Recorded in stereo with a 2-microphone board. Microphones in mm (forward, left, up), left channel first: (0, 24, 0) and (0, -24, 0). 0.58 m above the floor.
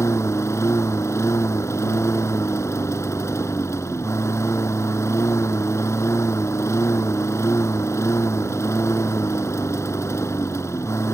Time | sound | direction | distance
0.0 | a lawn mower | 85° left | ?